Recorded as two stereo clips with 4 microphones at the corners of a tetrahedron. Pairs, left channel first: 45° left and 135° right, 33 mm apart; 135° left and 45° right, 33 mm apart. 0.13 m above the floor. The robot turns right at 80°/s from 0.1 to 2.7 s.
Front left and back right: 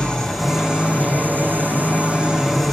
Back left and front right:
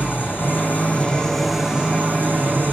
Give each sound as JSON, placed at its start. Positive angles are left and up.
{"t": 0.0, "sound": "an engine running", "azimuth_deg": 115, "distance_m": 7.5}